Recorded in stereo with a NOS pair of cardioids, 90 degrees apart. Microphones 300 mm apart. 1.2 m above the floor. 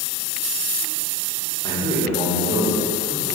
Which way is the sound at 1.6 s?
10° left.